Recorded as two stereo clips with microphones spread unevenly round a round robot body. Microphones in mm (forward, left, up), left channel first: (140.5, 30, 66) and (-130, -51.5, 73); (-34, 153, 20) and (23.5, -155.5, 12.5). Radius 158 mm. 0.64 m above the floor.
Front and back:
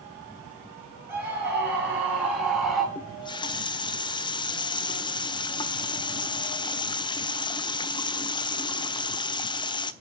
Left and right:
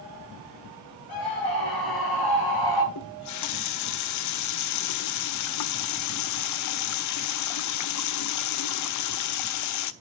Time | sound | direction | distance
1.1 | a scream | 115° left | 5 m
3.0 | a running tap | 85° left | 0.6 m